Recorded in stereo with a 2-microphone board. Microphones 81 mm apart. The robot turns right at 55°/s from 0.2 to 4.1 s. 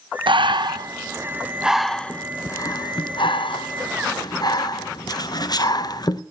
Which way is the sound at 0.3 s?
85° right.